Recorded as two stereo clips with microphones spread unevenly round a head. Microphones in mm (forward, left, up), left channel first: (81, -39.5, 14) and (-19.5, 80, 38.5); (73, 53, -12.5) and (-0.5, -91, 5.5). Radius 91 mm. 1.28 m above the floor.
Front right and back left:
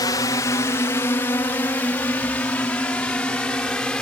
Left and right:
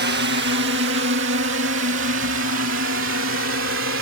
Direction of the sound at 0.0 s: 110° right.